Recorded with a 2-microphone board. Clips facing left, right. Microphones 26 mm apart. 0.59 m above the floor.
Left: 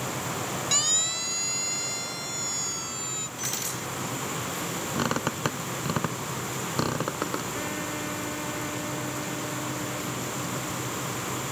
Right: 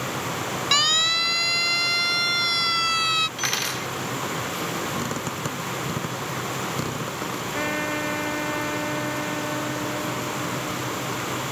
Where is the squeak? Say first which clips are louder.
Even; 30° left (ahead or behind).